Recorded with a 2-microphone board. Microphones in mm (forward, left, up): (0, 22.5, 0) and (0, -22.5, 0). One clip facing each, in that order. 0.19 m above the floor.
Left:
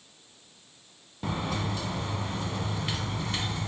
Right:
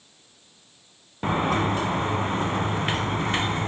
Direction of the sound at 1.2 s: 45° right (ahead or behind).